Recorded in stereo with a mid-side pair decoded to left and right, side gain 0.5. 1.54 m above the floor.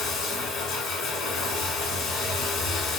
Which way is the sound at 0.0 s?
70° left.